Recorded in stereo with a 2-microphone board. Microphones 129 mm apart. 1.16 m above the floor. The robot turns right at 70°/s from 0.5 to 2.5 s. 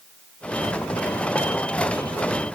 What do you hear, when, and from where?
Only background noise.